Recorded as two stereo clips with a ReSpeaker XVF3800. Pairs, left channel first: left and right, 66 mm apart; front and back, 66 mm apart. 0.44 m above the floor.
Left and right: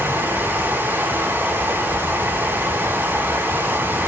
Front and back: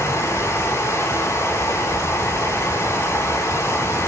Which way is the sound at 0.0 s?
35° right.